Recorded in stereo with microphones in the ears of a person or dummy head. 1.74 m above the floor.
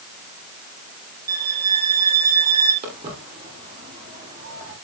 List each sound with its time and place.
1.3 s a violin: 20° right (ahead or behind), 3 m
2.8 s footsteps: 30° right (ahead or behind), 9 m; by 4.8 s 20° right (ahead or behind), 9.5 m